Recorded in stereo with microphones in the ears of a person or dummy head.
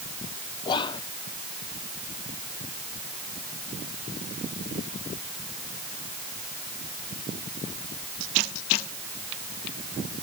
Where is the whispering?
25° left (ahead or behind).